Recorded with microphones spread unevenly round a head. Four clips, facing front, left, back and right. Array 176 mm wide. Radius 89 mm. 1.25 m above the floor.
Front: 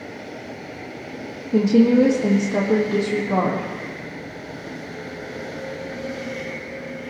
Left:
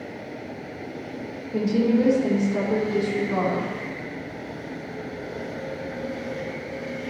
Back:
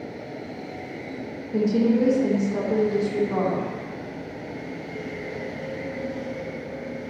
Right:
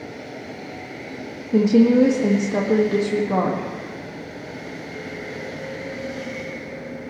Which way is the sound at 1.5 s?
50° right.